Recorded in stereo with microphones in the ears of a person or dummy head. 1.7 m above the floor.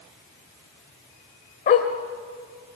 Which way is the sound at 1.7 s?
30° left (ahead or behind).